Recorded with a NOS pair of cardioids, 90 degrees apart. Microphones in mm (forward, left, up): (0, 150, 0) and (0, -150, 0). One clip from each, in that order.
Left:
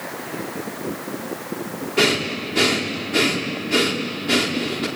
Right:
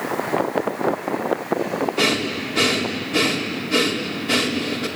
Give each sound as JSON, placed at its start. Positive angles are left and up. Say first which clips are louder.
{"t": 2.0, "sound": "breathing", "louder": "left 4 dB", "azimuth_deg": 20, "distance_m": 4.5}